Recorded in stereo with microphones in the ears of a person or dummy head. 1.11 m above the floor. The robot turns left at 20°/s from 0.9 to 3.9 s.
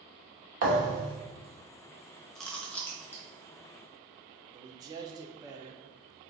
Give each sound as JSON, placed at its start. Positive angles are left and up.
{"t": 0.6, "sound": "a thud", "side_deg": -50, "distance_m": 1.2}
{"t": 2.4, "sound": "chewing", "side_deg": 0, "distance_m": 0.7}
{"t": 4.5, "sound": "a man speaking", "side_deg": -25, "distance_m": 0.6}